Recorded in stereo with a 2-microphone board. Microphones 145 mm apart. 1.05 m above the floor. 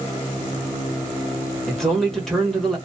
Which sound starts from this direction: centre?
A man speaking, at 1.7 s.